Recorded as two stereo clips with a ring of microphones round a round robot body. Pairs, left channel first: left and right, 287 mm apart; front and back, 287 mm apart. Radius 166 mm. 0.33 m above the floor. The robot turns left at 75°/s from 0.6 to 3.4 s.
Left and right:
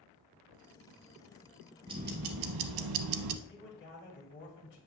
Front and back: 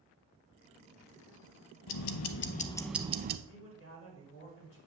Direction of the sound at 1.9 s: 10° right.